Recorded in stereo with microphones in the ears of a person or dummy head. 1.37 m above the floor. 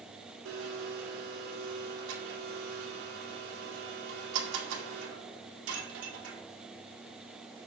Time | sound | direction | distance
0.5 | a blender | 70° right (ahead or behind) | 1.7 m